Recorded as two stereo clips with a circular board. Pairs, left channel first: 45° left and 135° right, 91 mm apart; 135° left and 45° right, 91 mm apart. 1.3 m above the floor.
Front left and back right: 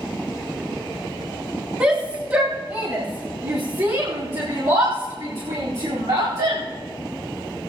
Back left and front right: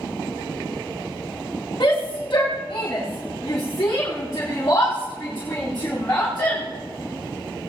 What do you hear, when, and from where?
1.8 s a shout: 160° left, 2.5 m; by 6.6 s 155° right, 5 m